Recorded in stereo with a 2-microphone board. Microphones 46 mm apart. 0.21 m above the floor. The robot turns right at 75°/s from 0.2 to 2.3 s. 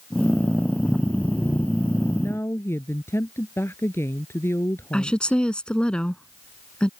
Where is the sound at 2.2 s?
70° left (ahead or behind).